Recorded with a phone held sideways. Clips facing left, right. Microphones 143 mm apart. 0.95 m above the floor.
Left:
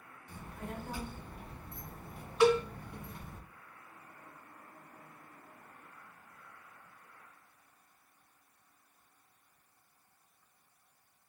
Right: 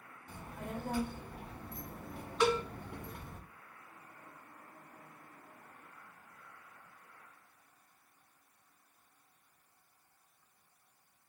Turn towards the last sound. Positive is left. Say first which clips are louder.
# left 5 dB
turn(degrees=15)  # may be behind; listen again after turning